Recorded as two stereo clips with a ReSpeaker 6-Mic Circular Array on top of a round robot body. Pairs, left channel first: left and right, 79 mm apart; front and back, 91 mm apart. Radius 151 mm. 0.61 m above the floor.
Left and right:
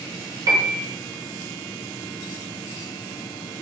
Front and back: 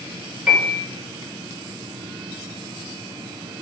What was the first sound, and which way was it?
A piano, 95° right.